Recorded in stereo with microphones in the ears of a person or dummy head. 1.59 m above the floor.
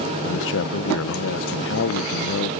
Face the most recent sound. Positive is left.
turn(degrees=70)  # may be behind; listen again after turning